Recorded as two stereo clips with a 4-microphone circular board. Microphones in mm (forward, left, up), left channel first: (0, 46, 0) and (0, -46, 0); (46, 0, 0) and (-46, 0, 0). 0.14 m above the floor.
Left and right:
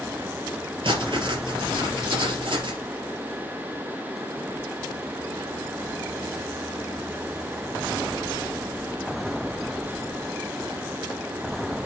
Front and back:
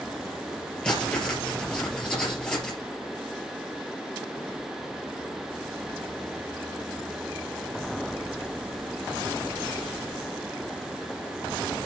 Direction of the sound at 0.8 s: 80° right.